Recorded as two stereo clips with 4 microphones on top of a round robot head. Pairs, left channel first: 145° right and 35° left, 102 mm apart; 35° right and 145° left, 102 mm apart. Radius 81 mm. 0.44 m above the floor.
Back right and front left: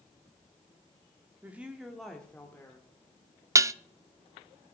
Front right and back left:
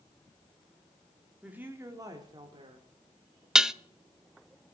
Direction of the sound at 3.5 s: 65° left.